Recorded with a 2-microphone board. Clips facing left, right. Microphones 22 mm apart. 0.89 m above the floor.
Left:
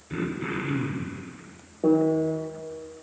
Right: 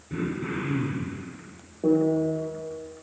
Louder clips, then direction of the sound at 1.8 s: Left 1 dB; 50° left (ahead or behind).